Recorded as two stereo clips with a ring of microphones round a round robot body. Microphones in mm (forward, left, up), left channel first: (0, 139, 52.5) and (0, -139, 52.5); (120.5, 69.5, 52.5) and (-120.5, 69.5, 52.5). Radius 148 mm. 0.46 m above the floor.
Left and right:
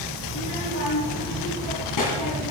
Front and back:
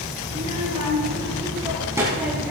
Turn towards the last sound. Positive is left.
turn(degrees=95)